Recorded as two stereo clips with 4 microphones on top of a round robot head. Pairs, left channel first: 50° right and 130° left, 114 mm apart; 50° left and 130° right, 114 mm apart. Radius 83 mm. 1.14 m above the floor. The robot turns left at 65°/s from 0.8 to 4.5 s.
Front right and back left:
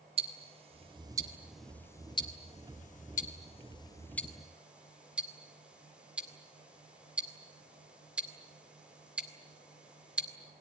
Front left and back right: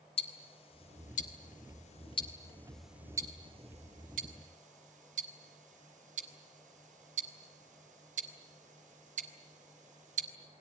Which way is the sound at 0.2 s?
90° left.